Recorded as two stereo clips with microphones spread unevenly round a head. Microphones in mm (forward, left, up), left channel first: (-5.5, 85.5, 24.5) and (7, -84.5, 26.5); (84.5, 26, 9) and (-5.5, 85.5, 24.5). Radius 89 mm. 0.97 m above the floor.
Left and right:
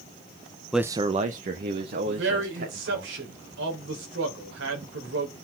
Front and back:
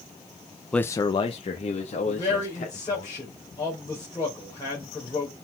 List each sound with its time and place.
0.7 s a man speaking: 10° left, 0.6 m; by 3.1 s 55° right, 3 m
2.1 s a man speaking: 105° right, 4 m